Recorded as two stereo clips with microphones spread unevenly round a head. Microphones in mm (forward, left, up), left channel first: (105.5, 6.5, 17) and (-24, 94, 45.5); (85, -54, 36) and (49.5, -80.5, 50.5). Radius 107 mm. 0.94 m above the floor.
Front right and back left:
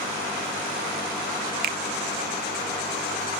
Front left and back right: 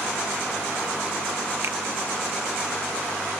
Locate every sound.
1.6 s a finger snap: 170° left, 0.6 m